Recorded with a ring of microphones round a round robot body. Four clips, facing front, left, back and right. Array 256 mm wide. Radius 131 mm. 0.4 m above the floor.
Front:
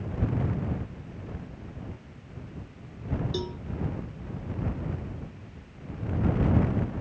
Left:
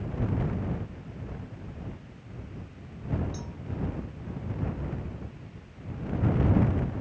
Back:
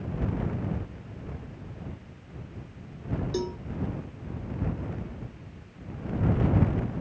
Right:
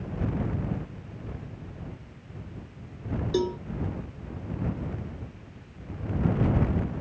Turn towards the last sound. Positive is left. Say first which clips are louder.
# right 16 dB, back 3 dB
turn(degrees=-100)